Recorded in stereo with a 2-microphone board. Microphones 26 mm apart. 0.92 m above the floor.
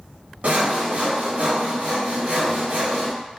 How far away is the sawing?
About 0.7 m.